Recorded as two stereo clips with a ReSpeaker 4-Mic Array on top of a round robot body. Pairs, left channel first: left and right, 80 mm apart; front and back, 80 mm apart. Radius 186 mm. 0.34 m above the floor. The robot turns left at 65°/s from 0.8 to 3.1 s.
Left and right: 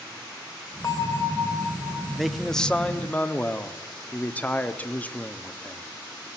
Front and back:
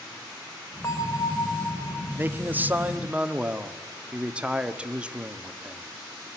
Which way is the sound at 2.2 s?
175° right.